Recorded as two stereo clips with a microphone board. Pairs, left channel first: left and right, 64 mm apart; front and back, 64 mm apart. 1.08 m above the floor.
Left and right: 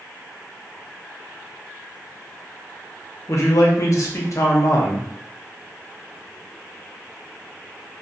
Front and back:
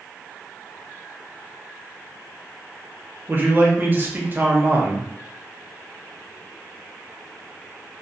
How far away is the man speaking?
About 0.6 m.